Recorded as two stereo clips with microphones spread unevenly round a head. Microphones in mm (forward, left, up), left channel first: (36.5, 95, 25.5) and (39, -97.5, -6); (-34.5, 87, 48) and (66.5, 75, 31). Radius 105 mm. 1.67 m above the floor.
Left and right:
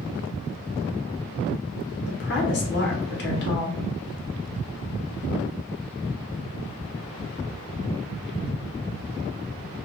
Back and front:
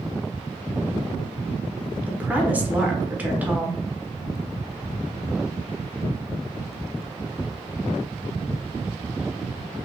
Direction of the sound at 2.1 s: 75° left.